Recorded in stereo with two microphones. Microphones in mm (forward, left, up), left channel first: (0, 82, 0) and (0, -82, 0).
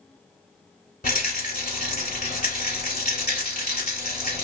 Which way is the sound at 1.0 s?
60° left (ahead or behind).